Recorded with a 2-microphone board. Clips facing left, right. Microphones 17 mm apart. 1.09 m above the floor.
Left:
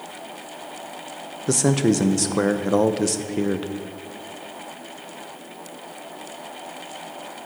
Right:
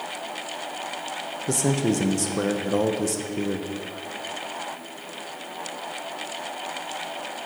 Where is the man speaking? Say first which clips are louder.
Left 4 dB; 30° left (ahead or behind), 0.6 m.